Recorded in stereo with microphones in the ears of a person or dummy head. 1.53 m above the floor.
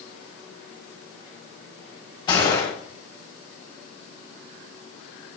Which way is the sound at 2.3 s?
25° left (ahead or behind).